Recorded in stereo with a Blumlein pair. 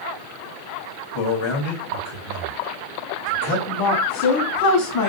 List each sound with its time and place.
1.1 s a man speaking: 50° left, 1.1 m
3.7 s a woman speaking: 45° left, 1.1 m